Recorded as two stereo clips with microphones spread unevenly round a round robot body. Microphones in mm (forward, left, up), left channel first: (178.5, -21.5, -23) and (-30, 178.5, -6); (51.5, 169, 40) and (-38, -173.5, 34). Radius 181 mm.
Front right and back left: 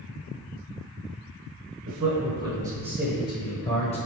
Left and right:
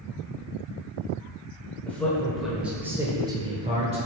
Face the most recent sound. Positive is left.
turn(degrees=-60)